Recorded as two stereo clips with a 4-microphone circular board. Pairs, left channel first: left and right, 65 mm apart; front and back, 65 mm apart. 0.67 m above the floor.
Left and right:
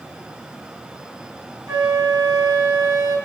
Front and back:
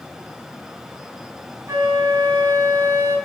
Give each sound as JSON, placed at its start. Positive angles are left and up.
{"t": 1.7, "sound": "a flute", "azimuth_deg": -135, "distance_m": 5.0}